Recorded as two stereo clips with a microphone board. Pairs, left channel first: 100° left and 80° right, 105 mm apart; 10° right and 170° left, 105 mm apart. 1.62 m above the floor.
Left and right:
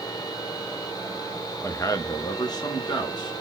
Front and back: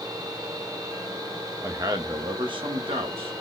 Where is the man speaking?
140° left, 0.5 m; by 3.3 s 145° left, 1.4 m.